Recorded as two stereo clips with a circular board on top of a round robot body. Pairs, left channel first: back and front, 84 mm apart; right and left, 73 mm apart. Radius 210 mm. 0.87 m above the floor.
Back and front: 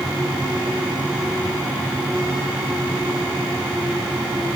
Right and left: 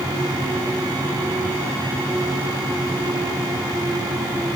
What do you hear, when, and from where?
Only background noise.